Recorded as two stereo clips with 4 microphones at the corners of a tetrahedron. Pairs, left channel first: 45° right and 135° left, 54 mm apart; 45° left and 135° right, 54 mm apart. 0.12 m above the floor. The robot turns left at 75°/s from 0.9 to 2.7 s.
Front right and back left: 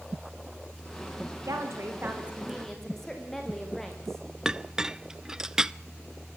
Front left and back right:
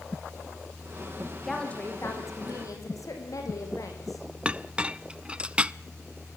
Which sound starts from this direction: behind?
A clink, at 4.5 s.